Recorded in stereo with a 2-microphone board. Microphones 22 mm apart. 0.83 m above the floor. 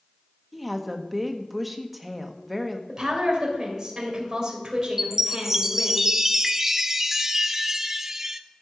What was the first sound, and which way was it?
A woman speaking, 5° right (ahead or behind).